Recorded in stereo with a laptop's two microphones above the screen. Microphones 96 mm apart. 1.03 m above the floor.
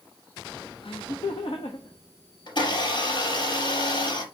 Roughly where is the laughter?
Left.